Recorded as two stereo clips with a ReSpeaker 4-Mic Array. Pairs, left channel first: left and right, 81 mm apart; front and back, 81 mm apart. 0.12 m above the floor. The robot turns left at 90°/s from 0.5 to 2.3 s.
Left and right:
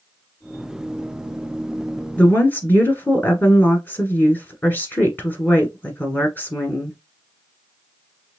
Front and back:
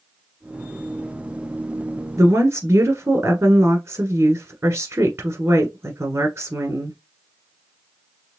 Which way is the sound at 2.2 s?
150° left.